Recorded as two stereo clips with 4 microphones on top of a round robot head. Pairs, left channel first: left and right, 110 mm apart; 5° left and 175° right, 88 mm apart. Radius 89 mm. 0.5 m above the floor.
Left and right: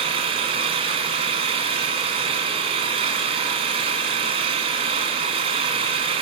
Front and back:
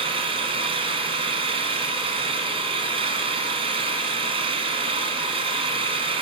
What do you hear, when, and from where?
0.0 s an engine running: 140° right, 2 m